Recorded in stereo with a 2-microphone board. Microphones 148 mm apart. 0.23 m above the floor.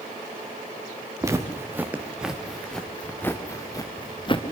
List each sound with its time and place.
1.2 s footsteps: 20° right (ahead or behind), 2.5 m; by 4.4 s 35° left (ahead or behind), 2.5 m